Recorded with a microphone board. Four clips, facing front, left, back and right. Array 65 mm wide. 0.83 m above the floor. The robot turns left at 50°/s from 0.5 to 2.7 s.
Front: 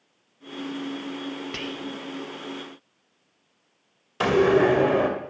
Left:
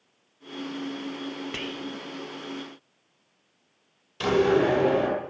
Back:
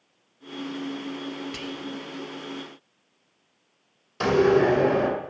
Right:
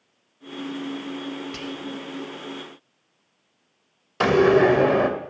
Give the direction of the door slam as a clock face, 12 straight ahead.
3 o'clock.